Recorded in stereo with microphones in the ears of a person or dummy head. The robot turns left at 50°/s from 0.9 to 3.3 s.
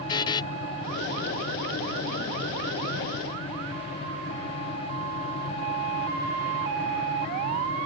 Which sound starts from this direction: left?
A buzzer, at 0.1 s.